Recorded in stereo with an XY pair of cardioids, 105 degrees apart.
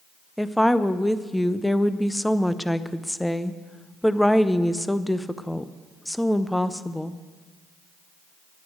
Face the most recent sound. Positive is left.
turn(degrees=5)